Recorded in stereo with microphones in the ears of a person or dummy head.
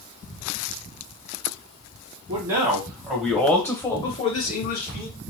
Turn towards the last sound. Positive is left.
turn(degrees=70)  # may be behind; listen again after turning